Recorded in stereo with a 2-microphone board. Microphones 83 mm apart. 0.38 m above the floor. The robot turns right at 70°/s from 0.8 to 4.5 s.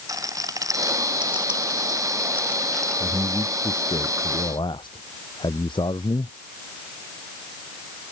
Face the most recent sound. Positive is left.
turn(degrees=110)